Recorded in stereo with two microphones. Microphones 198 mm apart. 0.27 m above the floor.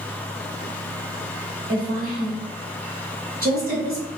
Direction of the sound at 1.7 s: 45° right (ahead or behind).